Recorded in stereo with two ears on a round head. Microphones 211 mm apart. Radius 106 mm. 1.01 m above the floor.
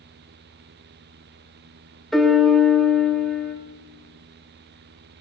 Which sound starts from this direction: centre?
A piano, at 2.1 s.